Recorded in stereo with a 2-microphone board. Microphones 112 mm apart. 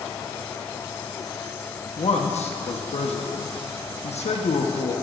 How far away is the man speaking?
About 1.0 m.